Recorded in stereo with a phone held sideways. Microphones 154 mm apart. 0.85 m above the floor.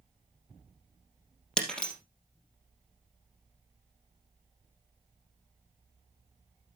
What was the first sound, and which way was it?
Breaking glass, 5° left (ahead or behind).